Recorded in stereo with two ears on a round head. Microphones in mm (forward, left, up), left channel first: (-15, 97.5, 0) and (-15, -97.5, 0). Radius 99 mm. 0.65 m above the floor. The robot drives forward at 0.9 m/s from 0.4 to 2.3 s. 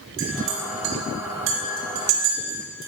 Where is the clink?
60° right (ahead or behind), 4 m; by 2.9 s 80° right, 3.5 m.